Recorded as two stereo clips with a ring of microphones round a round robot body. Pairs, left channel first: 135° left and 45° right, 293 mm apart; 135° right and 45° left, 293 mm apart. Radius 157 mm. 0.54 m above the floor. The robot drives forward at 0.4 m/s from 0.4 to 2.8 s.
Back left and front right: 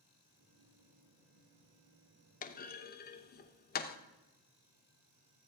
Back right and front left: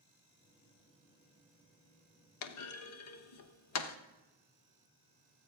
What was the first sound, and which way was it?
A clunk, 165° right.